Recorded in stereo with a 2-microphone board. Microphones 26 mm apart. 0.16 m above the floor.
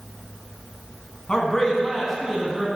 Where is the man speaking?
30° left (ahead or behind), 1.2 m; by 2.7 s 15° right (ahead or behind), 1.1 m.